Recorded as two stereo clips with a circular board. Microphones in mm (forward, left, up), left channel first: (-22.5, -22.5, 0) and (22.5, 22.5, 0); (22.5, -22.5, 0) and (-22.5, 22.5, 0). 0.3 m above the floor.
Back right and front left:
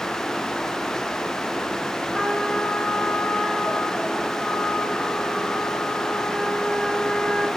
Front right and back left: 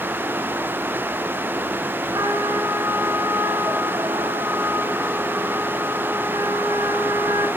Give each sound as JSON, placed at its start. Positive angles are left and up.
{"t": 2.1, "sound": "a trumpet", "azimuth_deg": 145, "distance_m": 2.5}